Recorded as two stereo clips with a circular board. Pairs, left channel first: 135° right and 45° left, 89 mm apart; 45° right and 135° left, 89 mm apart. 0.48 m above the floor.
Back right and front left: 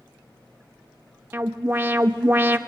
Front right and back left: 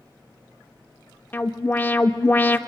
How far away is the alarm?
About 0.6 m.